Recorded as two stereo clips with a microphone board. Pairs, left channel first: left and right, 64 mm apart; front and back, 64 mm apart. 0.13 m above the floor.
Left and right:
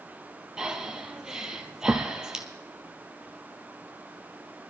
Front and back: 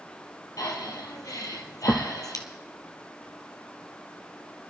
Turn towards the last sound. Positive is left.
turn(degrees=-10)